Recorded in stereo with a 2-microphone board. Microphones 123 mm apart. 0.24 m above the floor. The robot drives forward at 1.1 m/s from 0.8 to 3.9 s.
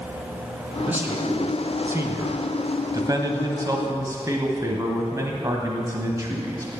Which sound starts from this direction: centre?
A man speaking, at 0.9 s.